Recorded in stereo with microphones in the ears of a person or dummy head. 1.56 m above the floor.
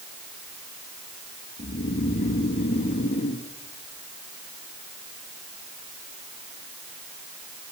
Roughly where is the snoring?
Left.